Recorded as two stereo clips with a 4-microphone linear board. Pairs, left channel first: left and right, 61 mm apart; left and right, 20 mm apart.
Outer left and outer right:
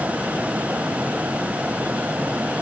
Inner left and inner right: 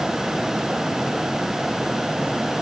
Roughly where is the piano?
No piano in this recording.